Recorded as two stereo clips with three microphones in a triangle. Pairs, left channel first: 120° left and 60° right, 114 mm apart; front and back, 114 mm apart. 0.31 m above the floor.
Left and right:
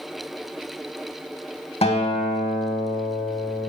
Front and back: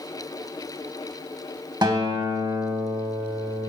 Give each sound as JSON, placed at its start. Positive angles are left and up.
{"t": 1.8, "sound": "a guitar", "azimuth_deg": 135, "distance_m": 0.5}